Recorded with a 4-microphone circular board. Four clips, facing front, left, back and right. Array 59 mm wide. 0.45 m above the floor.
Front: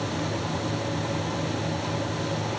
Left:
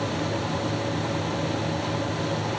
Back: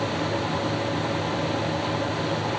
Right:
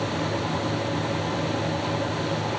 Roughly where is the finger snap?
No finger snap in this recording.